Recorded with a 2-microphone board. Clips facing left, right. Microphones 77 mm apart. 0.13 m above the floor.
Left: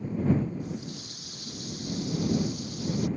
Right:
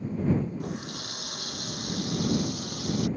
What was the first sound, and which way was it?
A running tap, 75° right (ahead or behind).